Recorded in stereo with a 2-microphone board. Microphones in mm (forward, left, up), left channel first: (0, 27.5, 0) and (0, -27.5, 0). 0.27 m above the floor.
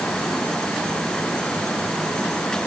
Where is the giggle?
No giggle in this recording.